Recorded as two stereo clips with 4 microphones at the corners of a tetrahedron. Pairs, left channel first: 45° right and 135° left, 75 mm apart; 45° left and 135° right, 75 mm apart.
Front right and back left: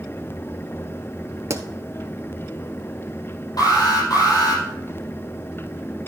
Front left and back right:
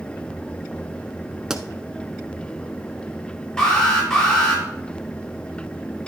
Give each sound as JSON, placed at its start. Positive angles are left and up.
{"t": 1.5, "sound": "a pop", "azimuth_deg": 145, "distance_m": 0.9}
{"t": 3.6, "sound": "an alarm", "azimuth_deg": -35, "distance_m": 4.5}